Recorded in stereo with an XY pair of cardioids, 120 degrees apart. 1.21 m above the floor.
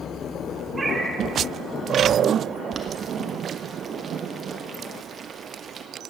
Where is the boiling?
35° right, 1.2 m.